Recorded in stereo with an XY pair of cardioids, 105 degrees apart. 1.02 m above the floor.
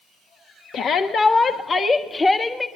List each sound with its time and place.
0.7 s a shout: 65° left, 1.3 m; by 2.7 s 20° left, 1.9 m